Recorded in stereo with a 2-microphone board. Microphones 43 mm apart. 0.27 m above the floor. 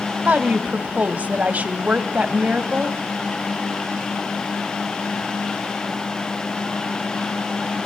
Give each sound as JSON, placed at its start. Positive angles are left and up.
{"t": 0.2, "sound": "a woman speaking", "side_deg": -40, "distance_m": 1.5}